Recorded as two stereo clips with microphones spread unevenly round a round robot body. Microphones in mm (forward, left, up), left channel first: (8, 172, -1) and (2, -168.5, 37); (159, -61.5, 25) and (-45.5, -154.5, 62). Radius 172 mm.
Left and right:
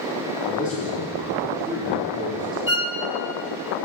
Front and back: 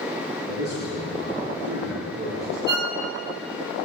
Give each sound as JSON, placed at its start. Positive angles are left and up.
{"t": 0.5, "sound": "a man speaking", "azimuth_deg": 160, "distance_m": 7.5}
{"t": 2.7, "sound": "a violin", "azimuth_deg": 130, "distance_m": 2.0}